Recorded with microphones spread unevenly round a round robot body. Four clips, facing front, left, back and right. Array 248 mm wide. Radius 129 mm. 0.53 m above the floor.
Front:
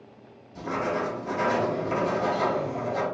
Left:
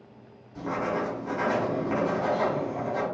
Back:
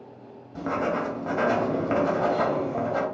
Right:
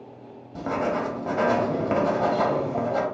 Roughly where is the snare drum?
I don't hear a snare drum.